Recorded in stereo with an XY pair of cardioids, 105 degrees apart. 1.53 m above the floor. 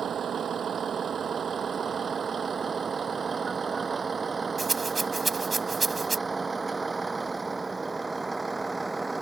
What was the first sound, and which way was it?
A vehicle, 50° right.